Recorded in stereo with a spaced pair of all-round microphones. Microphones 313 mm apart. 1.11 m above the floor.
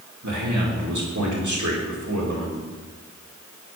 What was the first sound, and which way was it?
A man speaking, 70° right (ahead or behind).